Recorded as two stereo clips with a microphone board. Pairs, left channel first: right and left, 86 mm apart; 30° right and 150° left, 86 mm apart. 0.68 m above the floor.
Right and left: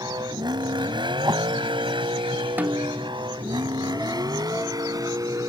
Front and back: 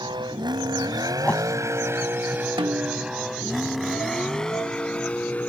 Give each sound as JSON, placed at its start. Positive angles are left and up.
{"t": 0.0, "sound": "a vehicle", "azimuth_deg": 125}
{"t": 1.2, "sound": "a whoosh", "azimuth_deg": 45}
{"t": 2.6, "sound": "a snare drum", "azimuth_deg": 160}